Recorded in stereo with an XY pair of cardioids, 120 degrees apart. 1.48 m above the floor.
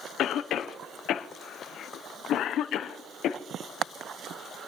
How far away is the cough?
About 0.7 m.